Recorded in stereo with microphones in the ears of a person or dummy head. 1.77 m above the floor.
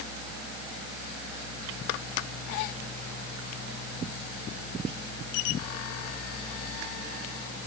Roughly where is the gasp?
I don't hear a gasp.